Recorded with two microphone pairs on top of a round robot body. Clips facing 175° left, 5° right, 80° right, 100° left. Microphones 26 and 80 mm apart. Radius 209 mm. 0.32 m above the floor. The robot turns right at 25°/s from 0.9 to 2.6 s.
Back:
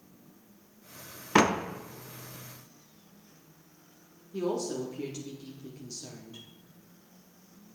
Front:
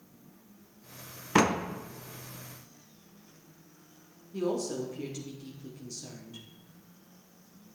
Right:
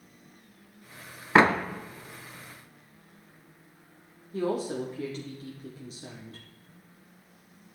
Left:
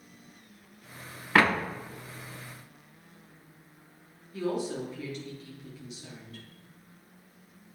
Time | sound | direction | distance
1.4 | a door slam | 125° right | 0.9 m
4.3 | a woman speaking | 110° right | 1.8 m